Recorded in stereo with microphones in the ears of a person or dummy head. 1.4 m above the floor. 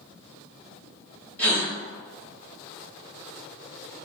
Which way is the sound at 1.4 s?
10° left (ahead or behind).